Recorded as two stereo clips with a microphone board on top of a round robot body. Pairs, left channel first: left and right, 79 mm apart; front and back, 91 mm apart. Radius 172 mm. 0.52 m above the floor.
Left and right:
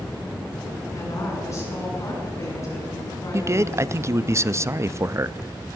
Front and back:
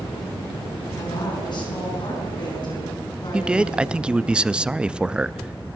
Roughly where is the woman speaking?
Ahead left.